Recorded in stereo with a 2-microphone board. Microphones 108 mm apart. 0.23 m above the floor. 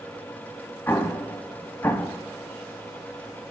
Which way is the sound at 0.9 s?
25° left (ahead or behind).